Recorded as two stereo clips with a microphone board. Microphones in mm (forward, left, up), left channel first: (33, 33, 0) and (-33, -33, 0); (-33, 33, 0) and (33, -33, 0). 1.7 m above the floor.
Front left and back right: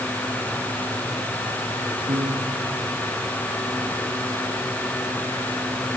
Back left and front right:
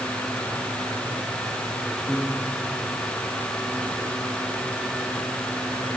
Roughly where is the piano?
Behind right.